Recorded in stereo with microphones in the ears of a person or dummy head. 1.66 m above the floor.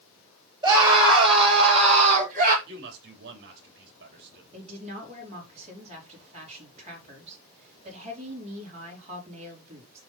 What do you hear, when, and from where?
0.6 s a scream: 25° right (ahead or behind), 6.5 m; by 2.6 s 45° right (ahead or behind), 4.5 m
2.7 s a man speaking: 60° right (ahead or behind), 3 m
4.5 s a woman speaking: 35° right (ahead or behind), 4.5 m